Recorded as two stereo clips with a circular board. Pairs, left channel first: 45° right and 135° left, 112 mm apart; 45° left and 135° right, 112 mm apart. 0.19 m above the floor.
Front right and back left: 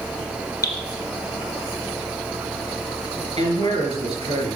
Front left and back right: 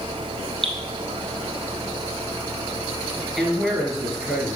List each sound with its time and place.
0.6 s dripping: 105° right, 1.8 m
3.4 s a man speaking: 135° left, 3.5 m